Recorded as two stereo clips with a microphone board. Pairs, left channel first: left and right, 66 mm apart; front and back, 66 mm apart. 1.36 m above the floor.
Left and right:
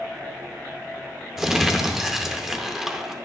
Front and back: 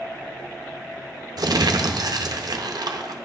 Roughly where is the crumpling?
Behind.